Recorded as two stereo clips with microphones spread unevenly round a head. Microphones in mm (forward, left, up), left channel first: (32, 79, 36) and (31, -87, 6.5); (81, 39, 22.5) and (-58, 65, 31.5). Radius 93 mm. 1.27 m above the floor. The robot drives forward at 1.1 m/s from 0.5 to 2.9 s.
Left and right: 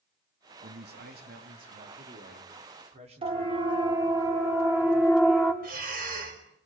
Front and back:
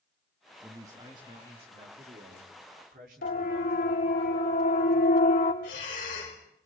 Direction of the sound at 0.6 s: 110° right.